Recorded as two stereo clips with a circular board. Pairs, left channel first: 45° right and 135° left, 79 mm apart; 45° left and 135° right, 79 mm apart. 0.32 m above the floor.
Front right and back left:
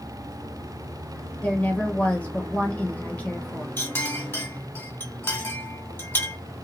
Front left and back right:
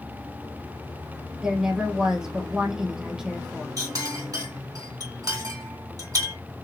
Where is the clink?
105° right, 2.0 m.